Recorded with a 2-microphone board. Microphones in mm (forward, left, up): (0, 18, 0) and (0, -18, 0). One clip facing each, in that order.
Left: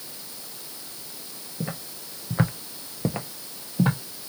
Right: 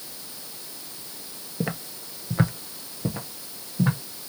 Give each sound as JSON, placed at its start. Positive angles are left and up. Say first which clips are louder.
{"t": 1.6, "sound": "footsteps", "louder": "right 4 dB", "side_deg": -45, "distance_m": 0.7}